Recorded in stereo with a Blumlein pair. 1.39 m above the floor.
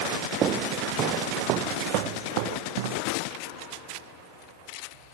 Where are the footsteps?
25° right; by 3.0 s 50° right.